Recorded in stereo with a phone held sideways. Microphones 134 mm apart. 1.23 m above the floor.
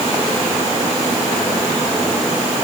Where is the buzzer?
No buzzer in this recording.